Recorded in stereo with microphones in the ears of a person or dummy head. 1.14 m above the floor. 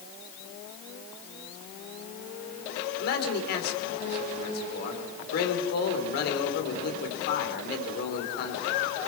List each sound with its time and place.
3.0 s a man speaking: 65° left (ahead or behind), 3.5 m